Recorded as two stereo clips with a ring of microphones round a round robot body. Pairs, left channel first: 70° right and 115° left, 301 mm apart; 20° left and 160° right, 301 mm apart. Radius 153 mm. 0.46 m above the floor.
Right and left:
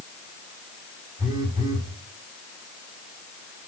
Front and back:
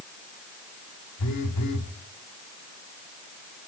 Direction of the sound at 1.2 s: 35° left.